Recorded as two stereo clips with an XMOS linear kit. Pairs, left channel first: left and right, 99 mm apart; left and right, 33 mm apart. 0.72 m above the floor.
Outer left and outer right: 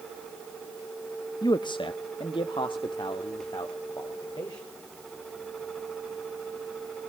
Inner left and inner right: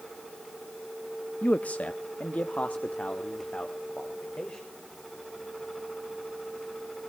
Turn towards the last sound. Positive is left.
turn(degrees=45)  # may be behind; listen again after turning